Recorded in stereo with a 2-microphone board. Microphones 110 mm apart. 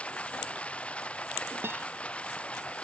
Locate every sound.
0.0 s running water: 10° left (ahead or behind)
1.6 s a guitar: 20° right (ahead or behind)